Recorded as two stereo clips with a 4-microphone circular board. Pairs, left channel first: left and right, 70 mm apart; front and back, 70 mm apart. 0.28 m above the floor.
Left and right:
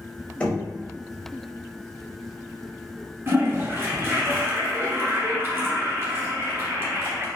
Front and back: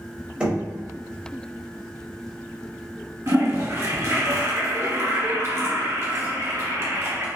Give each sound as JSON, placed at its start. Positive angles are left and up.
{"t": 0.4, "sound": "knocking", "azimuth_deg": 130, "distance_m": 0.8}
{"t": 3.3, "sound": "a toilet flushing", "azimuth_deg": -135, "distance_m": 1.3}